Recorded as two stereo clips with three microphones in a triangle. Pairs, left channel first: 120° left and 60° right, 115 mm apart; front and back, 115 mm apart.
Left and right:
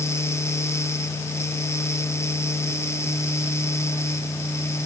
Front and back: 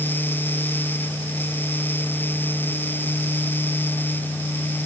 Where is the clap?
I don't hear a clap.